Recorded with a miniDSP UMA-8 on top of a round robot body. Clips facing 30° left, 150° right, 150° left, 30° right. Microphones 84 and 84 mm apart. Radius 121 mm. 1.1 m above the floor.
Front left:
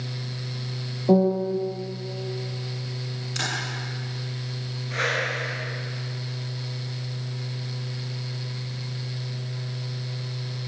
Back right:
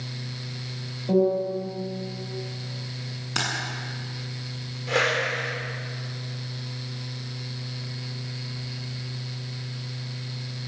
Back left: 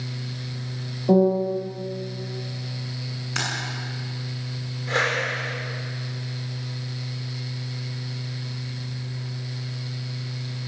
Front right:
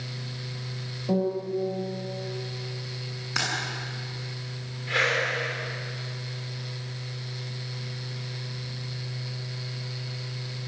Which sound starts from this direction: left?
A piano, at 1.1 s.